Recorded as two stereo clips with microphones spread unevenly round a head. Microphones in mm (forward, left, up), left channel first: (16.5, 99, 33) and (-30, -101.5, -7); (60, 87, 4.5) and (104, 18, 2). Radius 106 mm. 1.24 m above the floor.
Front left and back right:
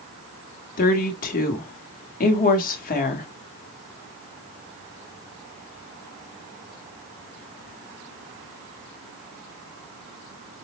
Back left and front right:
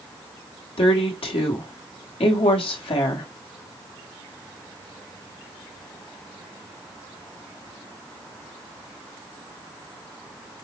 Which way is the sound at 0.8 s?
125° left.